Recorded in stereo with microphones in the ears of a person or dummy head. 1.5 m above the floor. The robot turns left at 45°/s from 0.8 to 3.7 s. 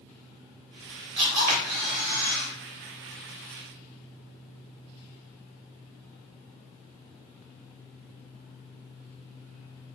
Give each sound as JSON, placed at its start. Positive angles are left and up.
{"t": 1.2, "sound": "a camera shutter", "azimuth_deg": -30, "distance_m": 1.9}